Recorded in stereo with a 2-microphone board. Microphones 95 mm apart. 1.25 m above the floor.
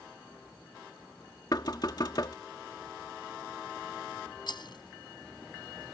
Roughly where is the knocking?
Left.